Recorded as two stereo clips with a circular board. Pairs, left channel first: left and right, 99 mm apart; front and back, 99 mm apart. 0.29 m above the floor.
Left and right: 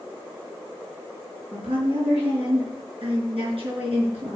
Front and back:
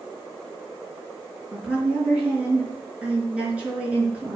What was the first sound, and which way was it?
A woman speaking, 105° right.